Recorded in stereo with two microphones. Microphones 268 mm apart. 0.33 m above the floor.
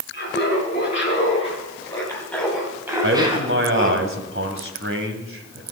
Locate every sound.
0.1 s laughter: 35° left (ahead or behind), 4 m; by 4.0 s 35° right (ahead or behind), 2.5 m
3.0 s a man speaking: 50° right (ahead or behind), 2 m